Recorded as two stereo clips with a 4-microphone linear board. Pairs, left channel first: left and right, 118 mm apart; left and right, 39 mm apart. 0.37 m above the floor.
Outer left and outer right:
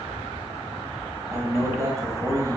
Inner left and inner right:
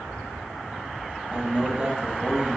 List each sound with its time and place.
1.3 s a man speaking: 25° right (ahead or behind), 1.9 m